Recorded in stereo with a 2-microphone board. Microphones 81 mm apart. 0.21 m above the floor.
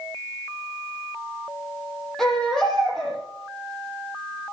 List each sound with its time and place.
2.2 s a baby crying: 5° left (ahead or behind), 6 m